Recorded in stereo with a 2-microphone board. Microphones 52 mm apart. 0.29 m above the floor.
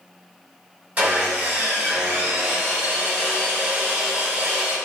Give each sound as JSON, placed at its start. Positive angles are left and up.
{"t": 1.0, "sound": "sawing", "side_deg": -30, "distance_m": 1.3}